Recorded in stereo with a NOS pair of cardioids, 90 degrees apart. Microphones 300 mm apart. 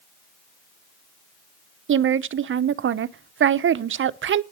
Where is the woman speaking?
40° right, 0.7 m.